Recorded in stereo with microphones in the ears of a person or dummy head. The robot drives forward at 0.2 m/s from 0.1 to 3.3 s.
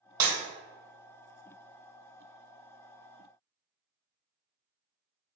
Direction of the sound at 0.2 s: 20° right (ahead or behind).